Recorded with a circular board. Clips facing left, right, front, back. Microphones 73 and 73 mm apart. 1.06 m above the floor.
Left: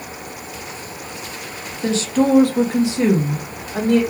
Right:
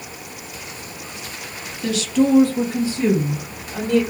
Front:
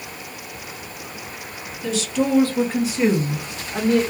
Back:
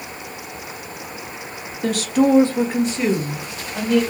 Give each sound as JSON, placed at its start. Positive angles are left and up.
{"t": 1.8, "sound": "a woman speaking", "azimuth_deg": 150, "distance_m": 1.4}